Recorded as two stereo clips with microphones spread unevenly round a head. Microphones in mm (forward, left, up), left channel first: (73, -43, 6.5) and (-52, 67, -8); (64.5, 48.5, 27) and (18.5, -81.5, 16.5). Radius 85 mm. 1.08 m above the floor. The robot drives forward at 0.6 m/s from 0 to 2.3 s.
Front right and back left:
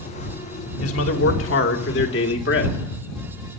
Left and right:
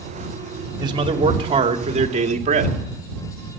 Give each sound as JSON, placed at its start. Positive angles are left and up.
{"t": 0.8, "sound": "a man speaking", "azimuth_deg": -55, "distance_m": 2.5}